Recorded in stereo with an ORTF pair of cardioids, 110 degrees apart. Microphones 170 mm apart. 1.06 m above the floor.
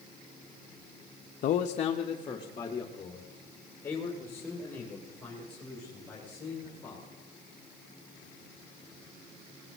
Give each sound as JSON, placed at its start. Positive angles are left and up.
{"t": 1.4, "sound": "a man speaking", "azimuth_deg": 55, "distance_m": 0.7}